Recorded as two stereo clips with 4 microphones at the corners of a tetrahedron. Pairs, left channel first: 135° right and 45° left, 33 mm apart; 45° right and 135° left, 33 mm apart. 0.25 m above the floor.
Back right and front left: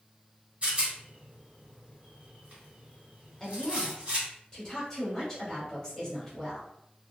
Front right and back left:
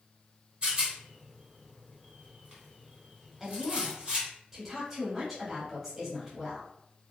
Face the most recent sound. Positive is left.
turn(degrees=-170)